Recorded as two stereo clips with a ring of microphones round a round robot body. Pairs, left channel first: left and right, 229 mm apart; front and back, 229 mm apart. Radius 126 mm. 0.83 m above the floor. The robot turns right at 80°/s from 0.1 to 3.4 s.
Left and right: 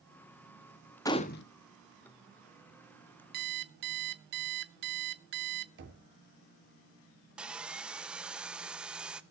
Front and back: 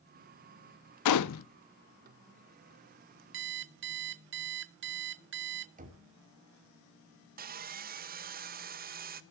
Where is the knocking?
125° right, 2.5 m.